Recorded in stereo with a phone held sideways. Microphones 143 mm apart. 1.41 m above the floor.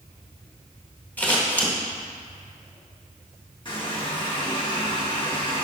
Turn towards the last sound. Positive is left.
turn(degrees=35)  # may be behind; listen again after turning